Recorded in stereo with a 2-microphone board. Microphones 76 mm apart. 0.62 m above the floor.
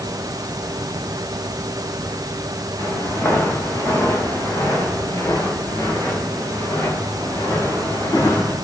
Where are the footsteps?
35° left (ahead or behind), 7 m; by 8.5 s 50° left (ahead or behind), 10 m.